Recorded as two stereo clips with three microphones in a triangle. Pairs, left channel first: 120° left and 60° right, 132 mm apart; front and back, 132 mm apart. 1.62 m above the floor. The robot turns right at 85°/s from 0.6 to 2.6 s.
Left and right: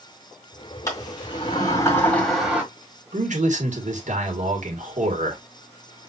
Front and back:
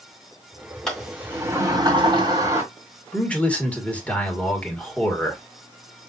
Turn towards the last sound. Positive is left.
turn(degrees=-80)